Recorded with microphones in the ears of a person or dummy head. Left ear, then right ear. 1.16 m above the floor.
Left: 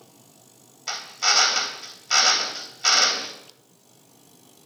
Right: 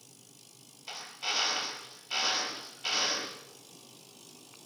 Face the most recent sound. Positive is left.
turn(degrees=50)  # may be behind; listen again after turning